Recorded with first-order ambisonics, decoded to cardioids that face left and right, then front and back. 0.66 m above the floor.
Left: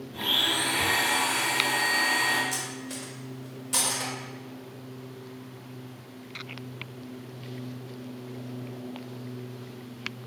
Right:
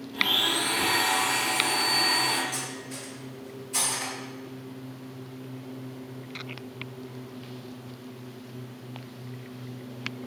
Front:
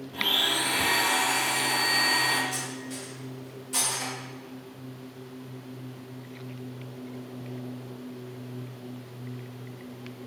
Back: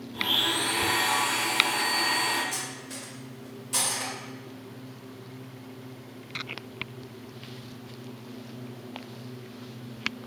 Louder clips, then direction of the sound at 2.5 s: Left 1 dB, front 1 dB; 105° left.